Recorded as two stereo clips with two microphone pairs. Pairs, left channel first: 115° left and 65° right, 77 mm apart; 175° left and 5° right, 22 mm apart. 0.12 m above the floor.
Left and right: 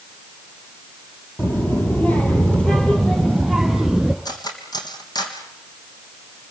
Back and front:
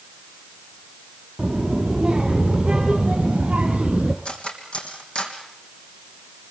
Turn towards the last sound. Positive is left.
turn(degrees=135)